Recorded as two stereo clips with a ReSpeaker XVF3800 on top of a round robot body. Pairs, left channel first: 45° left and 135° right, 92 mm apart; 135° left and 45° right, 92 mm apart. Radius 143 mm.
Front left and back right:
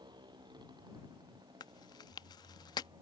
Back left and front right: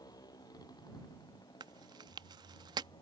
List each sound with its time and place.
0.0 s a motorcycle: 175° right; by 3.0 s straight behind
1.6 s chewing: straight ahead